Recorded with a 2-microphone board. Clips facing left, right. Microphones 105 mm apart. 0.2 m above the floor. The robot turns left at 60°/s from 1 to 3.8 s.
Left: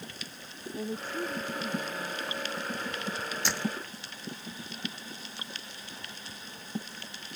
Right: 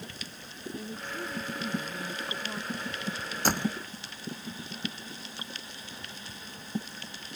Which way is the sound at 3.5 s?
45° right (ahead or behind).